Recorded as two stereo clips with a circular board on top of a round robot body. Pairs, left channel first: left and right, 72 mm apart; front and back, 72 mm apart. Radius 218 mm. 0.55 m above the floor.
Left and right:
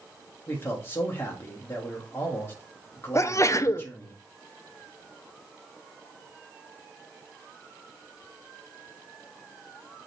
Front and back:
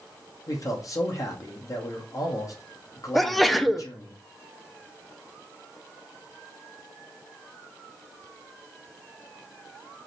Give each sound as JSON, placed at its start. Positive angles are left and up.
{"t": 0.5, "sound": "a man speaking", "azimuth_deg": 35, "distance_m": 1.1}
{"t": 3.1, "sound": "a sneeze", "azimuth_deg": 90, "distance_m": 0.7}